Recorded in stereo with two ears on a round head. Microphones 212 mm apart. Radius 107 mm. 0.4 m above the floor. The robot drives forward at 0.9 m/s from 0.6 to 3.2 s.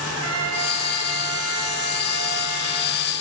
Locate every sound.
0.1 s a trumpet: 75° right (ahead or behind), 7 m; by 3.0 s 60° right (ahead or behind), 8 m